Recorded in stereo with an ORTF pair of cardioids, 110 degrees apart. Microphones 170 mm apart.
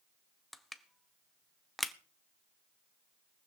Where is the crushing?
Straight ahead, 1.1 m.